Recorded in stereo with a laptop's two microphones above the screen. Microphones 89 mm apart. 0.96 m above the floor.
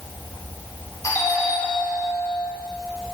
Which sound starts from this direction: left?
A doorbell, at 1.0 s.